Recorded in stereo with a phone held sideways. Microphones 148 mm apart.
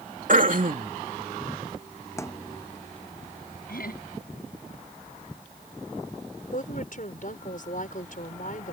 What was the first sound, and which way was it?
Throat clearing, 60° right (ahead or behind).